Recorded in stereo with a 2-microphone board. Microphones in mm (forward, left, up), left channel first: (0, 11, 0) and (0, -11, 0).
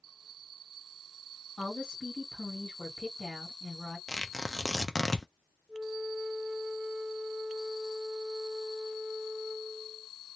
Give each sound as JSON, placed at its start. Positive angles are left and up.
{"t": 1.6, "sound": "a woman speaking", "side_deg": 30, "distance_m": 1.4}
{"t": 4.1, "sound": "tearing paper", "side_deg": 25, "distance_m": 0.6}
{"t": 5.7, "sound": "a flute", "side_deg": -25, "distance_m": 0.5}